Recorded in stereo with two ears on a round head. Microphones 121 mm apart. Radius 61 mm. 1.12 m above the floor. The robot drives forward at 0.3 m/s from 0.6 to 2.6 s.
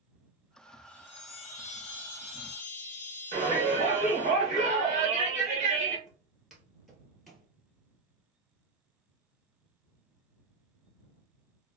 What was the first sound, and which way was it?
A chime, 50° left (ahead or behind).